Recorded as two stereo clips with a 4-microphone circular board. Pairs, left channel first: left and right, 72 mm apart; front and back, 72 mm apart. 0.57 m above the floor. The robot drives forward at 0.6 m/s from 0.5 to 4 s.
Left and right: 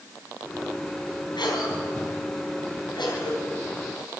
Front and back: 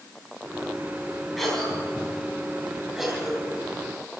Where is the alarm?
No alarm in this recording.